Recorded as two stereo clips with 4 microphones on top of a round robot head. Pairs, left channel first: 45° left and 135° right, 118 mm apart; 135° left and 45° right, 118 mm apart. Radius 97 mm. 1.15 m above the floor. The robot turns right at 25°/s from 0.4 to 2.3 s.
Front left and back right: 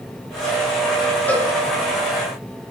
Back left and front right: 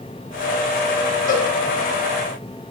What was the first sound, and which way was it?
A cowbell, 125° left.